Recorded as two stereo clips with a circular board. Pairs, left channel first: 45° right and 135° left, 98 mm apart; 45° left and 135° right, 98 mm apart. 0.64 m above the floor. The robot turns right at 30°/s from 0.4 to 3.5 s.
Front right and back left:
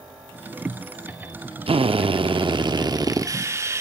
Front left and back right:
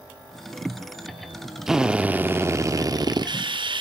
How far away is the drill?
About 0.6 m.